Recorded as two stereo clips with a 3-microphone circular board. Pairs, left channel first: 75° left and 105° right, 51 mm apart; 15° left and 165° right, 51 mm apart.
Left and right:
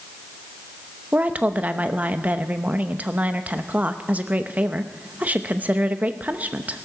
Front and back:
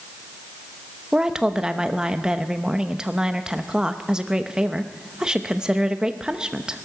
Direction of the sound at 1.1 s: 110° right.